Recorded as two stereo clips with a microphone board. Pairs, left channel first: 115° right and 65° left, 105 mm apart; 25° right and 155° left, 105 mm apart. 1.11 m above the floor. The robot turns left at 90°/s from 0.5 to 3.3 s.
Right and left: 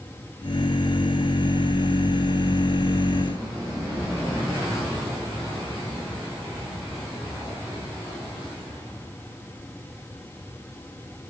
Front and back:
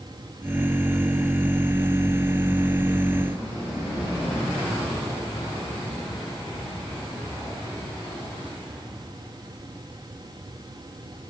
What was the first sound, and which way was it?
Only background noise.